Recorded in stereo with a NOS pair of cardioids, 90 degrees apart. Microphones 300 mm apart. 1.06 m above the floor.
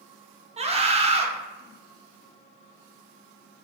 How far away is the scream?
About 0.6 m.